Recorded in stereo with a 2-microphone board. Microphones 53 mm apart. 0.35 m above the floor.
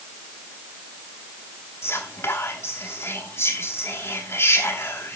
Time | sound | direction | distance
1.8 | whispering | 55° left (ahead or behind) | 2.5 m